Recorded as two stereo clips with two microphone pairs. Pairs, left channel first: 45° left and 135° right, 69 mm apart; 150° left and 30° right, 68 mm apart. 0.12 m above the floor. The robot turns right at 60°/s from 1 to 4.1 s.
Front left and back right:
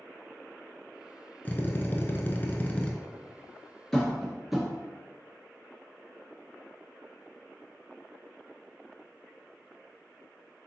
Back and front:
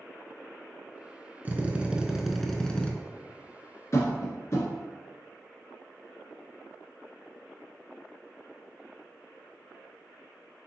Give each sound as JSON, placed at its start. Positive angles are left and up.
{"t": 1.4, "sound": "a drill", "azimuth_deg": 10, "distance_m": 0.6}
{"t": 3.9, "sound": "tapping", "azimuth_deg": 125, "distance_m": 1.4}